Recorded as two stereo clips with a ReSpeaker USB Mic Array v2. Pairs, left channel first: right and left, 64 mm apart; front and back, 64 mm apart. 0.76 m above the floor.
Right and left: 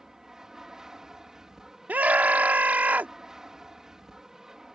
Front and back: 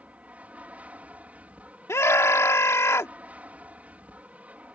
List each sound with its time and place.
0.0 s an aircraft: 160° left
1.9 s a scream: 30° left